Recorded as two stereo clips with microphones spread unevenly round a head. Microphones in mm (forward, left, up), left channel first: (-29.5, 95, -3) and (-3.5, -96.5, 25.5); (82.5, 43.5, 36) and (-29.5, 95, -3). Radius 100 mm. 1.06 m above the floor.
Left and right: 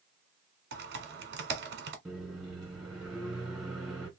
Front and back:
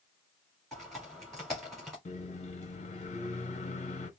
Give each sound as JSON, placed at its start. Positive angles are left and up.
{"t": 0.7, "sound": "typing on a keyboard", "azimuth_deg": -115, "distance_m": 1.1}
{"t": 2.0, "sound": "a microwave", "azimuth_deg": 5, "distance_m": 1.4}